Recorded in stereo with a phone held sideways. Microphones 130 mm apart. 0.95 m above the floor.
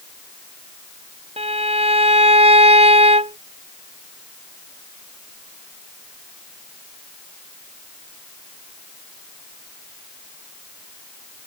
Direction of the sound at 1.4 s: 55° right (ahead or behind).